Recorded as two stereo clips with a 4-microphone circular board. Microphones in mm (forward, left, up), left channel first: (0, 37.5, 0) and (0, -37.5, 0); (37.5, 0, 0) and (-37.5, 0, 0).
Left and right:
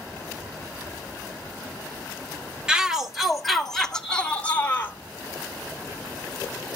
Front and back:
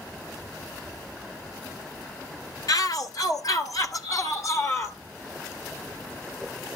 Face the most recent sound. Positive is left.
turn(degrees=35)